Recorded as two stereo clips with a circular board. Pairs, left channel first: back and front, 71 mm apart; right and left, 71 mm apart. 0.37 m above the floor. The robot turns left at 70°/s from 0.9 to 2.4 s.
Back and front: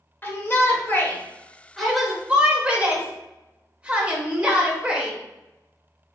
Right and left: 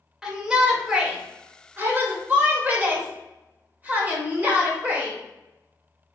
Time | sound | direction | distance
0.2 | a shout | 160° left | 0.9 m